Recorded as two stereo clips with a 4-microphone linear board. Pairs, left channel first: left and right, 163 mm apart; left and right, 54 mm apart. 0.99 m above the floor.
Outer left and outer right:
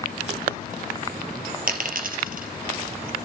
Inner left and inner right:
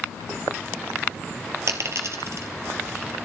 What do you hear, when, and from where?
1.7 s a dropped coin: 60° right (ahead or behind), 2 m